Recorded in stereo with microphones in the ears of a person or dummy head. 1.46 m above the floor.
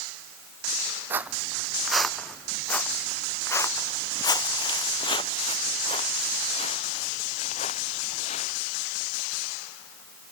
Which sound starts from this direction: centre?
Footsteps, at 1.1 s.